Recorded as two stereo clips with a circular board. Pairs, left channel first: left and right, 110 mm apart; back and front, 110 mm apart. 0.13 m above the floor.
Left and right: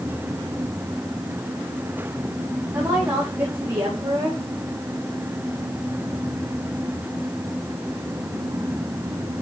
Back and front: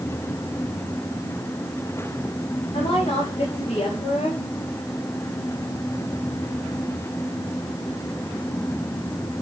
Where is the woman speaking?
155° right, 8.5 m.